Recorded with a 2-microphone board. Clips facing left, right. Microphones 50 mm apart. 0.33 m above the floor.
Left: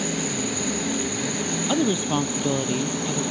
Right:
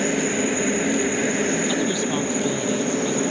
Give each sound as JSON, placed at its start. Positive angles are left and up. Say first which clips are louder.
{"t": 0.0, "sound": "a helicopter", "louder": "right 5 dB", "side_deg": -35}
{"t": 1.7, "sound": "a woman speaking", "louder": "even", "side_deg": 20}